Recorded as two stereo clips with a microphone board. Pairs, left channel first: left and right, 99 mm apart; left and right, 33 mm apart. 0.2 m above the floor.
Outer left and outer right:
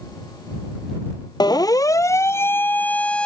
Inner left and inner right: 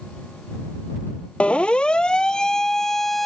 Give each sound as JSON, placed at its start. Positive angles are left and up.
{"t": 1.4, "sound": "a siren", "side_deg": 40}